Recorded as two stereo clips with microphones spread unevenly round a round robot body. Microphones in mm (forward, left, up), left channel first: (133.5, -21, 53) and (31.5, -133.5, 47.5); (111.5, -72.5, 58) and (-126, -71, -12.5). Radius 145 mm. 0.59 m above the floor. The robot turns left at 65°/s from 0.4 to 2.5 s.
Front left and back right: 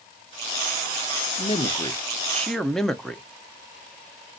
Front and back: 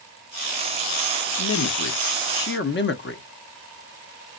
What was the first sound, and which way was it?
A man speaking, 30° left.